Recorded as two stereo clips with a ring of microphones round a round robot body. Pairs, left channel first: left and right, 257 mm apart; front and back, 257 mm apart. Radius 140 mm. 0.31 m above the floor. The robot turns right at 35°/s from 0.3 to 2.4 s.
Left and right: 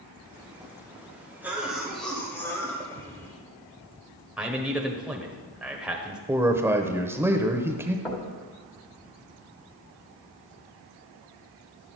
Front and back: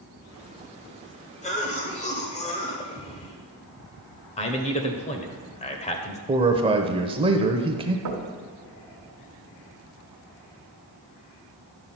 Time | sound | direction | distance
1.4 | a cough | 15° right | 1.2 m
4.4 | a man speaking | 10° right | 1.2 m
6.3 | a man speaking | 155° right | 0.9 m
8.1 | knocking | 175° left | 1.5 m